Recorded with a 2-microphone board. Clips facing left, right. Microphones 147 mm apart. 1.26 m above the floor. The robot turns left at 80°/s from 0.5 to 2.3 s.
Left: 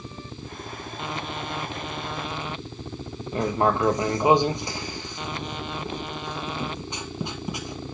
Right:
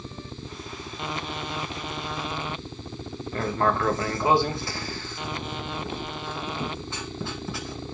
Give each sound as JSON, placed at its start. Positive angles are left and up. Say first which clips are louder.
{"t": 3.3, "sound": "writing", "louder": "left 2 dB", "side_deg": 20, "distance_m": 0.8}